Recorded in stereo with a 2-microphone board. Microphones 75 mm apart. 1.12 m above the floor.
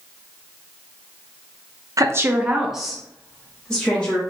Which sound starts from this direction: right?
A woman speaking, at 2.0 s.